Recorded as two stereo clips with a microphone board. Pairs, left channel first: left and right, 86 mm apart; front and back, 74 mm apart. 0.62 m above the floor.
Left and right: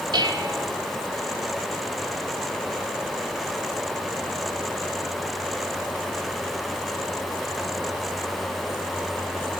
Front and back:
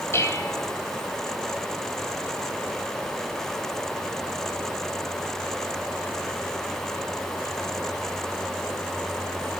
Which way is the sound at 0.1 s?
55° right.